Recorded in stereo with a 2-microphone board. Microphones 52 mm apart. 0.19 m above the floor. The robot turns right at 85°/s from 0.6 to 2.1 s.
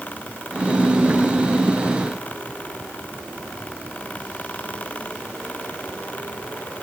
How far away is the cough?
I don't hear a cough.